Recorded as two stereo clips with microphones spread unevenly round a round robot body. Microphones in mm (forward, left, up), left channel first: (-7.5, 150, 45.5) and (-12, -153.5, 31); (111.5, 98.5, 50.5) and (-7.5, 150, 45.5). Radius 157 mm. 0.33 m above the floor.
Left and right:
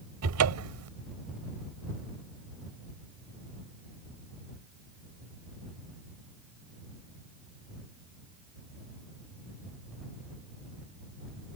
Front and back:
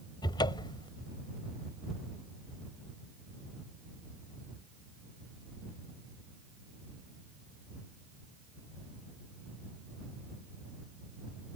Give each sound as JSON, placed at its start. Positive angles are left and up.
{"t": 0.2, "sound": "a cupboard door", "azimuth_deg": -80}